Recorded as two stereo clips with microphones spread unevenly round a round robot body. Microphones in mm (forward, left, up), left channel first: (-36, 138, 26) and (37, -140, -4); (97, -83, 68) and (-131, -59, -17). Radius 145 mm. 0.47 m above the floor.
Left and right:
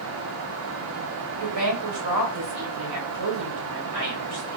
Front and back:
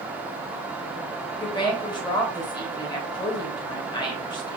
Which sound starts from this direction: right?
A woman speaking, at 1.4 s.